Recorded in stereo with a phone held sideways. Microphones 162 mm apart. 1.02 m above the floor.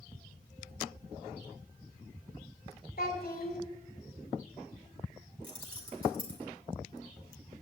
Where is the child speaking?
65° left (ahead or behind), 2 m.